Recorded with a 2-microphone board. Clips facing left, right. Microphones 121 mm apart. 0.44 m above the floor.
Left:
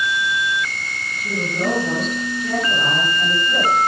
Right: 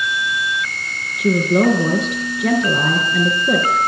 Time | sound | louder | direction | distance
1.2 | a woman speaking | right 10 dB | 80° right | 6.5 m